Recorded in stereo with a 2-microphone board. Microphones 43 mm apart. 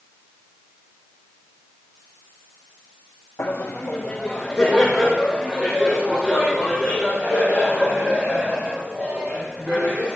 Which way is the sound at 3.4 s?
65° left (ahead or behind).